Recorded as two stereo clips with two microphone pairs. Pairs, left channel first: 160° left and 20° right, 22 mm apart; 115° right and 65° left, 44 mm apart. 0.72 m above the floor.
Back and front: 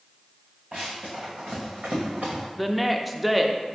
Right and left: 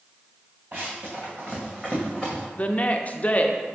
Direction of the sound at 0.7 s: 20° left.